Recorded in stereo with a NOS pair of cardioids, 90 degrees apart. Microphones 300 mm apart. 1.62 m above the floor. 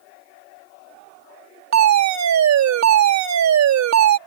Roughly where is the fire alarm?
Ahead right.